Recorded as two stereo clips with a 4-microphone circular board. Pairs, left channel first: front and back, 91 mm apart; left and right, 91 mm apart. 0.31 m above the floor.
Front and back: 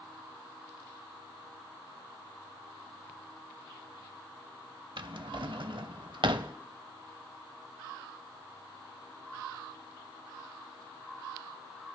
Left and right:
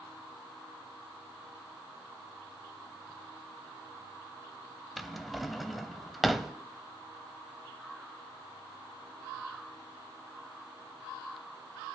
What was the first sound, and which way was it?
A drawer, straight behind.